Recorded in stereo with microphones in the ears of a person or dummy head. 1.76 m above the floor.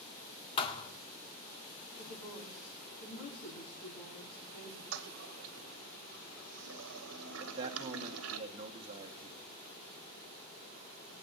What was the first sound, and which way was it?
A thud, 30° left (ahead or behind).